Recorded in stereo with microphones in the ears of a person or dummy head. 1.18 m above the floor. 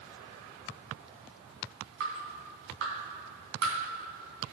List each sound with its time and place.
2.0 s dripping: 70° right (ahead or behind), 3 m